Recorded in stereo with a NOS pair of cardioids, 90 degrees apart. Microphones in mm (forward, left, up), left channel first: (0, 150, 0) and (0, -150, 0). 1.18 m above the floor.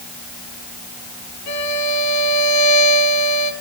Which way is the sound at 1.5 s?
65° left.